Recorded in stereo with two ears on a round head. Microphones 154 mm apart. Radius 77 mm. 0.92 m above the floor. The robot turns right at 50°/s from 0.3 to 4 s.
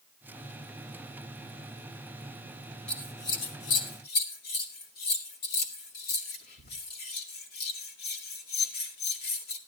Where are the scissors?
5° left (ahead or behind), 2 m; by 9.6 s 60° left (ahead or behind), 2 m.